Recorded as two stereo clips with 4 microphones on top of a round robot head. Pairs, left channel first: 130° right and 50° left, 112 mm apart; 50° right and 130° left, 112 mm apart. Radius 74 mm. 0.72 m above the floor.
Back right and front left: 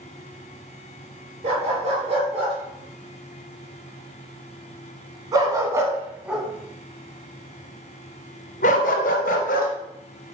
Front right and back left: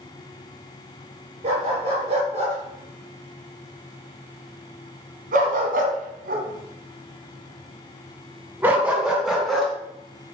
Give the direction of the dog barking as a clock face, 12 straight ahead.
9 o'clock.